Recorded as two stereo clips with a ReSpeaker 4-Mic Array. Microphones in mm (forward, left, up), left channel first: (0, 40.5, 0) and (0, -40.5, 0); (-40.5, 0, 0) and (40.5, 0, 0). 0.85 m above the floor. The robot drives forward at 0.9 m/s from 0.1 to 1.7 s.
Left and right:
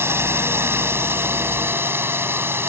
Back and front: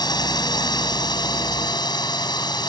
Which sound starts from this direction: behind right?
A drone, at 0.0 s.